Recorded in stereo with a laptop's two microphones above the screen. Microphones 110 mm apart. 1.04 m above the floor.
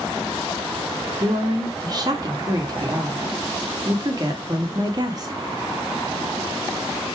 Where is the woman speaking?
35° right (ahead or behind), 1.9 m.